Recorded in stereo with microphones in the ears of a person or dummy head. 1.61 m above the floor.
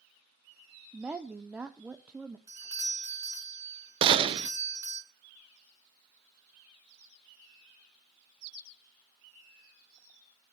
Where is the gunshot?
30° right (ahead or behind), 0.7 m.